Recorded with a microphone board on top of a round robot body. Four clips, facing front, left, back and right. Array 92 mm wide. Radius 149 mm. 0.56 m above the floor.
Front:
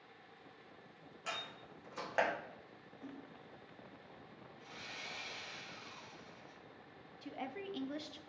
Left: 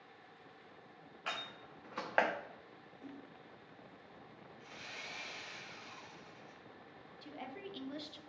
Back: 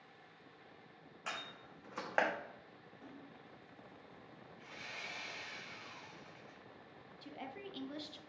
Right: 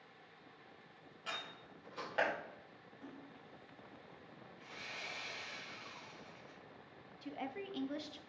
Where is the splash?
135° right, 1.4 m.